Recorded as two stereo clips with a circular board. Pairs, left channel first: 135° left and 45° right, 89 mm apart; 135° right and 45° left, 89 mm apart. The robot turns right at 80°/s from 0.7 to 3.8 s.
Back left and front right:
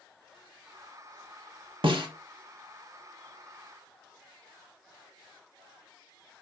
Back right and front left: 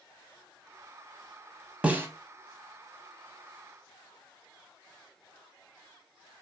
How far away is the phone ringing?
No phone ringing in this recording.